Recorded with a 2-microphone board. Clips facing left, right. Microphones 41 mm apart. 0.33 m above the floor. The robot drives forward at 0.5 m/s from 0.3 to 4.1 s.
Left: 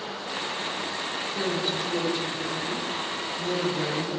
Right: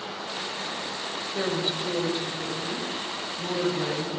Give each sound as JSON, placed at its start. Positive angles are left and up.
{"t": 1.3, "sound": "a woman speaking", "side_deg": -25, "distance_m": 1.3}